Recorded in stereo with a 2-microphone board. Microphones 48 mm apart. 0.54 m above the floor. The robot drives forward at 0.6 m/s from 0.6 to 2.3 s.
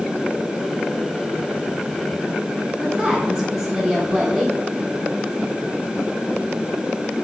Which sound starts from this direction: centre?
A woman speaking, at 2.8 s.